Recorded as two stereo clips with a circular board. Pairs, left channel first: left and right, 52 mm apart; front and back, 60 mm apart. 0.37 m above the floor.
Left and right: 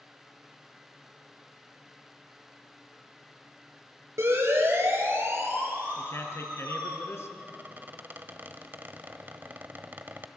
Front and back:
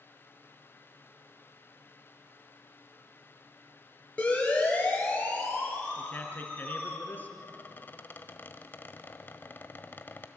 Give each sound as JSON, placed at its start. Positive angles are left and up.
{"t": 4.2, "sound": "a siren", "azimuth_deg": -70, "distance_m": 7.5}
{"t": 6.0, "sound": "a man speaking", "azimuth_deg": 60, "distance_m": 4.0}
{"t": 7.4, "sound": "a squeak", "azimuth_deg": -50, "distance_m": 1.2}